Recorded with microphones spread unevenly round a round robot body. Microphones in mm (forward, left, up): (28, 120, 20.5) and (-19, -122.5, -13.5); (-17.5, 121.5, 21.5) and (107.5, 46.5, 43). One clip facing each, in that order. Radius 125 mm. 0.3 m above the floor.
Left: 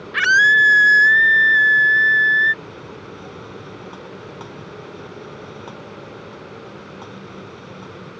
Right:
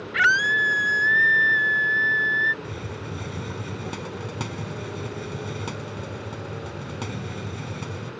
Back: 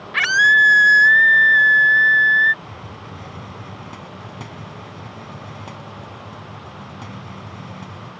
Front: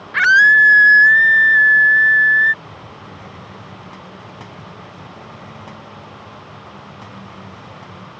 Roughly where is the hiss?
Behind right.